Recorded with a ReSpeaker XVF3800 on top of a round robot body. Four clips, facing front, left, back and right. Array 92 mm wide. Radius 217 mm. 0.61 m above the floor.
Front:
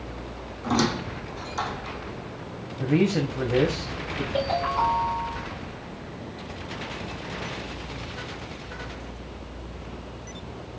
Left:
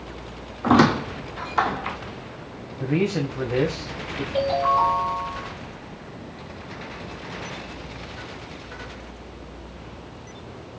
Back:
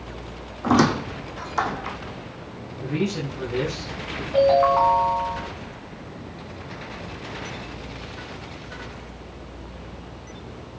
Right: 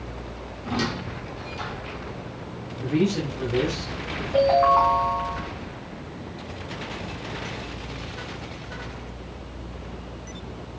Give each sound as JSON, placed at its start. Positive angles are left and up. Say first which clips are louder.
{"t": 0.6, "sound": "a squeak", "louder": "left 11 dB, back 6 dB", "azimuth_deg": 115, "distance_m": 0.5}
{"t": 2.8, "sound": "a man speaking", "louder": "even, front 4 dB", "azimuth_deg": 45, "distance_m": 2.0}
{"t": 4.3, "sound": "a ringtone", "louder": "right 3 dB, back 9 dB", "azimuth_deg": -140, "distance_m": 3.0}